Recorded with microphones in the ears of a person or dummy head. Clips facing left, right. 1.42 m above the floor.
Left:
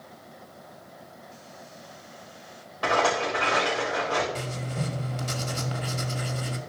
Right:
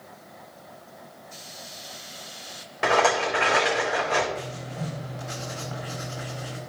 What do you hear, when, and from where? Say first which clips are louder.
2.8 s a rattle: right 2 dB; 30° right (ahead or behind), 4 m
4.3 s writing: left 1 dB; 40° left (ahead or behind), 1.5 m